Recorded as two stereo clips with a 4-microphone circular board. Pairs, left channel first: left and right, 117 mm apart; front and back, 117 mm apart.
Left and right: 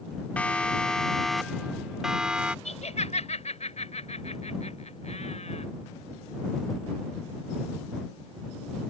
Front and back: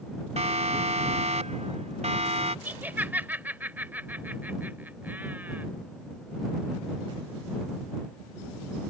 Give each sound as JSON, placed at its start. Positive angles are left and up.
{"t": 0.4, "sound": "a siren", "azimuth_deg": 170}
{"t": 2.6, "sound": "laughter", "azimuth_deg": 105}